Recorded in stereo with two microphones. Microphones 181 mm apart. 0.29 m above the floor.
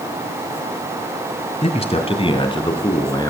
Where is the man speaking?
40° left (ahead or behind), 1.8 m; by 3.3 s 25° left (ahead or behind), 3 m.